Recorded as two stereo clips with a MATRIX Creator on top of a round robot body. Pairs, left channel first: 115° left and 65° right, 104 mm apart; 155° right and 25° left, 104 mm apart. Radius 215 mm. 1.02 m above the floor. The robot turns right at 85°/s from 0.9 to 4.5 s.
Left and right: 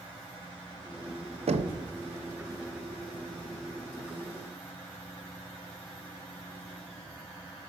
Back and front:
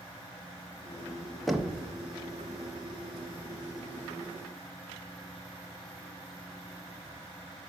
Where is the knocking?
70° right, 1.1 m; by 1.8 s 40° right, 1.1 m.